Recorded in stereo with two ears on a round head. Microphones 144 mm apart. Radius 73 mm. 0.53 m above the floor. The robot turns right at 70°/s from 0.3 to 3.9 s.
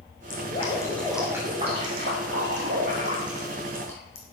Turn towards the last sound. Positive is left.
turn(degrees=15)